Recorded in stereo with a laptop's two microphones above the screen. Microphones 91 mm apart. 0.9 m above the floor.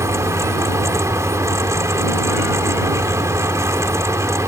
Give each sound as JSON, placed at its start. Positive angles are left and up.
{"t": 0.0, "sound": "a fan", "side_deg": -30}